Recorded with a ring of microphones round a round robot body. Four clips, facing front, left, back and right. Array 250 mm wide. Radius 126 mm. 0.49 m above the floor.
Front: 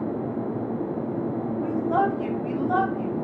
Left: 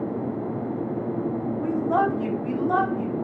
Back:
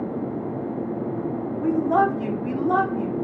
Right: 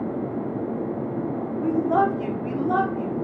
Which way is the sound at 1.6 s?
155° right.